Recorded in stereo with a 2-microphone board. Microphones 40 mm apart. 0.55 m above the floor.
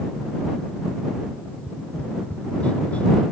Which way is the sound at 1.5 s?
30° left (ahead or behind).